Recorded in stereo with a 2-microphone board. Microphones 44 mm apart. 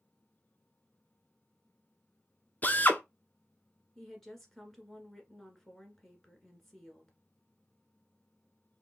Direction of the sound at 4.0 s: 5° left (ahead or behind).